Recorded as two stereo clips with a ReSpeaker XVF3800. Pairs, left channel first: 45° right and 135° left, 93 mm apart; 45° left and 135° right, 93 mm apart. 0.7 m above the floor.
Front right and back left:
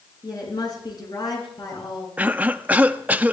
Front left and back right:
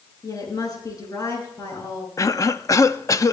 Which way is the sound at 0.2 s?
Straight ahead.